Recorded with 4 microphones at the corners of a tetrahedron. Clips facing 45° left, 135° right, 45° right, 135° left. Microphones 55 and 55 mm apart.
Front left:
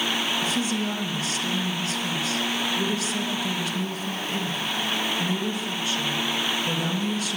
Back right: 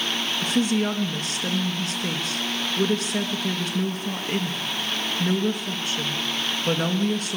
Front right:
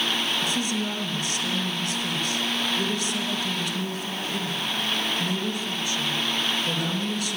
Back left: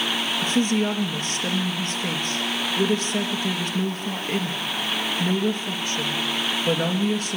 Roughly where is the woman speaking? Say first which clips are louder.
Back right 3 dB, back left 5 dB; behind.